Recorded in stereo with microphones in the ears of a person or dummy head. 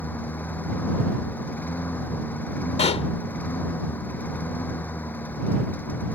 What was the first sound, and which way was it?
A lawn mower, 10° left (ahead or behind).